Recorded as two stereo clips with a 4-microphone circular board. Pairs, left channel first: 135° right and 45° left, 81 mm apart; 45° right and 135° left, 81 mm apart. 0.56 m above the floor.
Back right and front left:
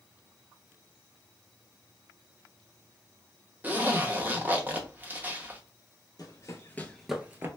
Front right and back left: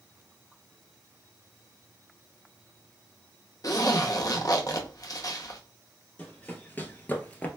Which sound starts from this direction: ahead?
A zipper, at 3.6 s.